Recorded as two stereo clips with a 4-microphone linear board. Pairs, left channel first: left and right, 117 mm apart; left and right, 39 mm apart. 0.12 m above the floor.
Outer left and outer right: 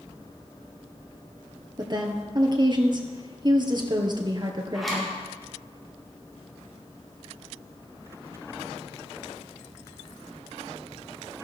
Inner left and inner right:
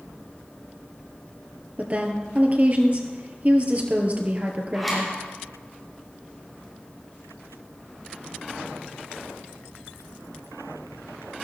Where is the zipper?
Centre (ahead or behind), 5.5 m.